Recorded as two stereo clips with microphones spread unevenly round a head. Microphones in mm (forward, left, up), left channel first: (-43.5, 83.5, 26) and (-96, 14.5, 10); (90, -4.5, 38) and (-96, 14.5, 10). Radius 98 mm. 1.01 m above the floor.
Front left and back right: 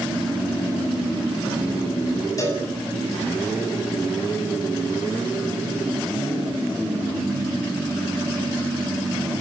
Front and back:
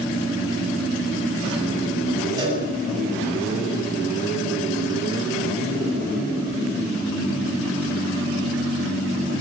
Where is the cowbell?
105° left, 8.5 m.